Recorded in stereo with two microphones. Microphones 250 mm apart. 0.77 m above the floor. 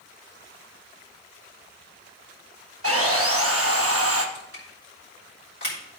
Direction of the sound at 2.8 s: 65° right (ahead or behind).